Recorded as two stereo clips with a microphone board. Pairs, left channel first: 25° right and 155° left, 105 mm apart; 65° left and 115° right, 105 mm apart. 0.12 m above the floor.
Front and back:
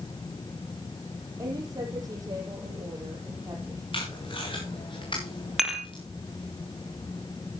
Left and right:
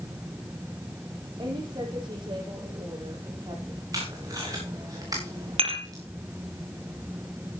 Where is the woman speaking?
150° right, 5 m.